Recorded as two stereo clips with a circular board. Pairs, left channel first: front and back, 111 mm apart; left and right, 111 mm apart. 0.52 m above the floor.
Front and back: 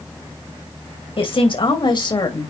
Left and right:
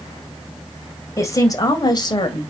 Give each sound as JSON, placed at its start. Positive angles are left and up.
{"t": 1.2, "sound": "a woman speaking", "azimuth_deg": 30, "distance_m": 2.5}